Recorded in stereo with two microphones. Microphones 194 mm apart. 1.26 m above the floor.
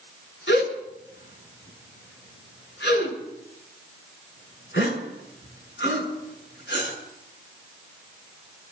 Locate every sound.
0.5 s a gasp: 70° left (ahead or behind), 6.5 m